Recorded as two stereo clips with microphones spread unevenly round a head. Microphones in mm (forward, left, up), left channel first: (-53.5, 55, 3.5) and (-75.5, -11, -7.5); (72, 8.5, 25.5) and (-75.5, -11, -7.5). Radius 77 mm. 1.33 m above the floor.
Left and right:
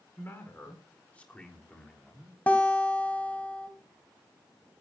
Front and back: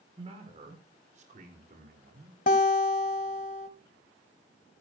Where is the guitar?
5° left, 1.9 m.